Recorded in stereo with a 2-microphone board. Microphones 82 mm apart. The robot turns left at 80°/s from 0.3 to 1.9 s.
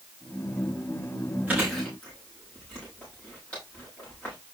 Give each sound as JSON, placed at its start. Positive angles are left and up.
{"t": 1.5, "sound": "chewing", "side_deg": -20, "distance_m": 8.5}